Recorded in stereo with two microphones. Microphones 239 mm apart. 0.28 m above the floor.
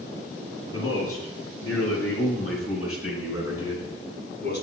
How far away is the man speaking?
About 4 m.